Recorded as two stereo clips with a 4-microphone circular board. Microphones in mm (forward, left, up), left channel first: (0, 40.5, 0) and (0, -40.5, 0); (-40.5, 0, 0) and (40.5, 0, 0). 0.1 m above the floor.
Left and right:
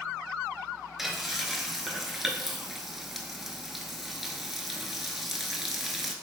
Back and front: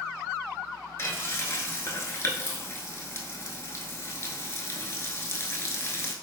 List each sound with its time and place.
1.0 s frying: 175° right, 0.5 m